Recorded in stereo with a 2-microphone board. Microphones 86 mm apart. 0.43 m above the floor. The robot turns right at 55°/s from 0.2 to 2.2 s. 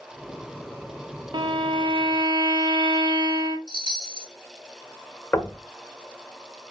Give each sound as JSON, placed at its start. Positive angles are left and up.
{"t": 1.3, "sound": "a violin", "azimuth_deg": -115, "distance_m": 0.9}
{"t": 3.7, "sound": "a chime", "side_deg": -55, "distance_m": 1.6}
{"t": 5.3, "sound": "knocking", "side_deg": 35, "distance_m": 1.1}